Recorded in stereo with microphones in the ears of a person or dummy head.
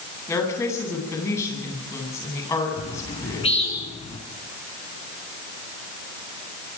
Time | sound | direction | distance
0.3 | a woman speaking | 15° left (ahead or behind) | 10 m
2.8 | a bird | 35° left (ahead or behind) | 3.5 m